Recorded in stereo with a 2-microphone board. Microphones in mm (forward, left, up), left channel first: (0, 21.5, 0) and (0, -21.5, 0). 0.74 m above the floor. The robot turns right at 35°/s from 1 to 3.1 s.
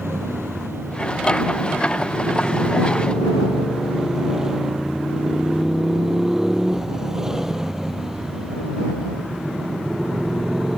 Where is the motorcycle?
80° right; by 10.8 s 10° right.